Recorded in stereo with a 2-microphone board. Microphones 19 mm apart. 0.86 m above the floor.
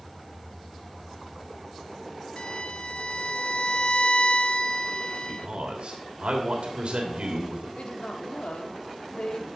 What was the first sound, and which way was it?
A violin, 55° left (ahead or behind).